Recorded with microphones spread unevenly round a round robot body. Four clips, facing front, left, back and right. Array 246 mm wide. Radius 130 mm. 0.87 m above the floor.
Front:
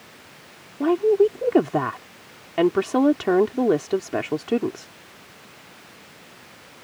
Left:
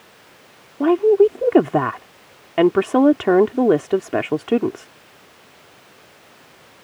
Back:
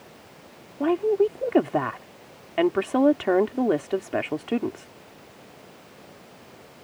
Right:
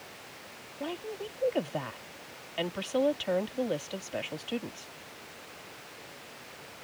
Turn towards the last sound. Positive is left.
turn(degrees=75)